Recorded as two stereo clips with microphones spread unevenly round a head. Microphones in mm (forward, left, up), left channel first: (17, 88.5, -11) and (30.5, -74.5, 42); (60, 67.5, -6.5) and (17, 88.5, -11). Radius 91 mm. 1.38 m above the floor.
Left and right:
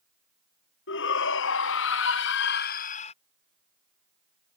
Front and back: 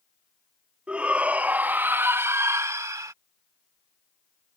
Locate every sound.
0.9 s a shout: 85° left; by 3.1 s 155° left